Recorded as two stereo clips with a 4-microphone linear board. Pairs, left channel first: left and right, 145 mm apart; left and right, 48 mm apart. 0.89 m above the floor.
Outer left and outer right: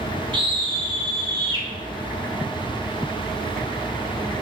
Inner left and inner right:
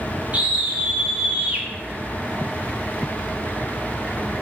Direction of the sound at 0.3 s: 35° right (ahead or behind).